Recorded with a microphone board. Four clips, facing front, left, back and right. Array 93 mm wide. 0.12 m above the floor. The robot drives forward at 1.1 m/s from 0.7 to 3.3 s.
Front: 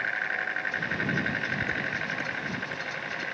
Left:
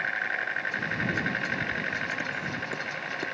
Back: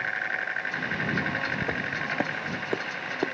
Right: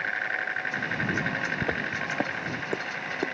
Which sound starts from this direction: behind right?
Footsteps, at 1.6 s.